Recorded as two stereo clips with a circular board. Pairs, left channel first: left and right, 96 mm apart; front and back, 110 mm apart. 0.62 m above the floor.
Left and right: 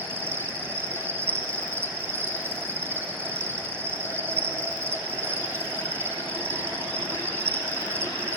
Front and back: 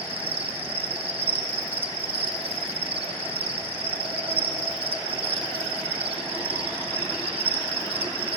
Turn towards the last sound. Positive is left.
turn(degrees=-155)